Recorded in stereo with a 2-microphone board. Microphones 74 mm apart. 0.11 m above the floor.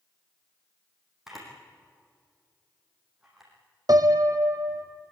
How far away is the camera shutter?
About 6 m.